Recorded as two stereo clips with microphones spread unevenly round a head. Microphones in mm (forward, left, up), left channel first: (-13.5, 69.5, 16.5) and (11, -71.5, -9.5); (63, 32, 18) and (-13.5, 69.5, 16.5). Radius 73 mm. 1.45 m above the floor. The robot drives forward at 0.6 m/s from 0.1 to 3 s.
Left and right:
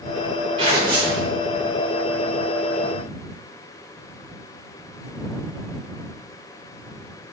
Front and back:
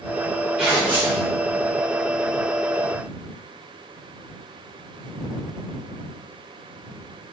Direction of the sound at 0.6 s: 120° right.